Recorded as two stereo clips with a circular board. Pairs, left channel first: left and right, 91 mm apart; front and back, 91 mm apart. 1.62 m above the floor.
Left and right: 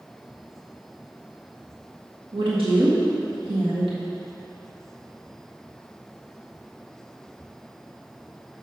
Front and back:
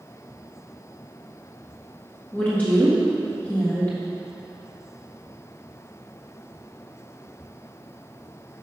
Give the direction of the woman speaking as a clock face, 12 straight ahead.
2 o'clock.